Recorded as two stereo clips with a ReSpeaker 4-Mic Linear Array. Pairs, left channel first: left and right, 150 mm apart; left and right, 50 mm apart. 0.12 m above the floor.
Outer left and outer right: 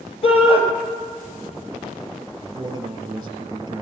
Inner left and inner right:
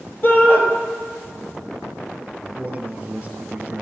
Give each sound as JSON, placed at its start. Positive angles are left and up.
{"t": 0.2, "sound": "a shout", "side_deg": 40, "distance_m": 3.0}
{"t": 2.4, "sound": "a man speaking", "side_deg": -25, "distance_m": 2.5}